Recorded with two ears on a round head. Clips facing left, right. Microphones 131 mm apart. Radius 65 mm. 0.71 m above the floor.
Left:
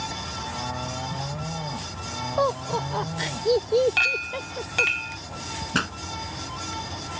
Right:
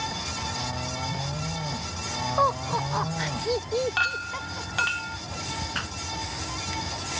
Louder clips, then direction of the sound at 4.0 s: Even; 20° left (ahead or behind).